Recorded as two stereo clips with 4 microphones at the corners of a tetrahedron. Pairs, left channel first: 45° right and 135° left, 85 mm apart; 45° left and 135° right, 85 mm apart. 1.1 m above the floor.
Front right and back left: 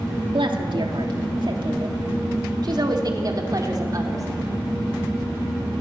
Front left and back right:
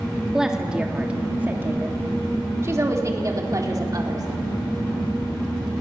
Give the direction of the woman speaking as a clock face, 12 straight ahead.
7 o'clock.